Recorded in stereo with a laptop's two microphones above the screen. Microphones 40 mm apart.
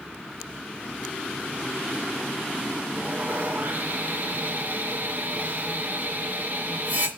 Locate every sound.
2.9 s sawing: 45° right (ahead or behind), 1.9 m